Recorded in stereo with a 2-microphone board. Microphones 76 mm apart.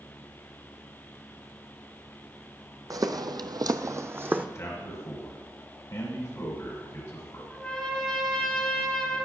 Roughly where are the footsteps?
Right.